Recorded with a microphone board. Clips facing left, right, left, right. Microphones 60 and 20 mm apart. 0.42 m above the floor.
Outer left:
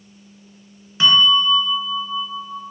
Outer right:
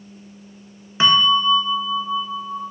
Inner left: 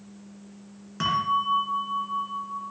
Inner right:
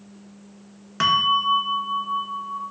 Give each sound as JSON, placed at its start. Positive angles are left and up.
{"t": 1.0, "sound": "a bell", "side_deg": -30, "distance_m": 2.0}